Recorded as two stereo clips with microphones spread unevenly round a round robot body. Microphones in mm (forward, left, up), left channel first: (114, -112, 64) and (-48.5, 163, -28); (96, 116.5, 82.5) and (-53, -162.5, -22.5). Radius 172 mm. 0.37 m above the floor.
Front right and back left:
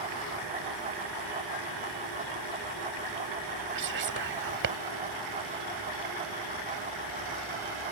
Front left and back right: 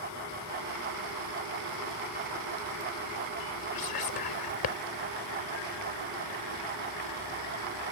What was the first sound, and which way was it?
Whispering, 90° left.